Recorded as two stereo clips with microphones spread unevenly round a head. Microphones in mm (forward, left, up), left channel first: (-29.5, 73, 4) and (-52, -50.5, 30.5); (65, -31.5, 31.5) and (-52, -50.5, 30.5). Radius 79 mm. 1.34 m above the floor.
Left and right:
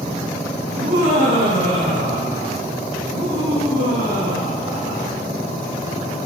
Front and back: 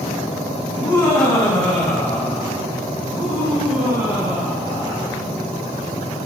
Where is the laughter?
65° right, 3 m; by 5.1 s 100° right, 4.5 m.